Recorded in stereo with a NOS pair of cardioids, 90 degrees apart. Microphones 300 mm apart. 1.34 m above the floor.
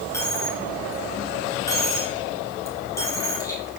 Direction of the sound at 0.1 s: 10° left.